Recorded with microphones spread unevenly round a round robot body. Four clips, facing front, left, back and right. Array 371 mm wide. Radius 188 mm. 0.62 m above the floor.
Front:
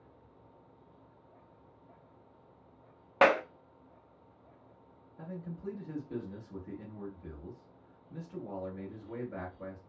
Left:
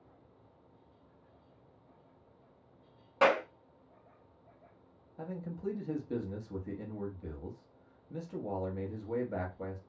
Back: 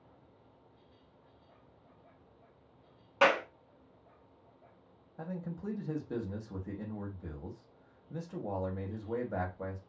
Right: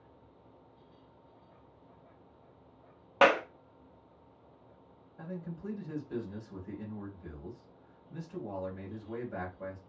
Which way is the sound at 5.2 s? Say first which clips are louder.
Left 2 dB, back 2 dB; 140° left.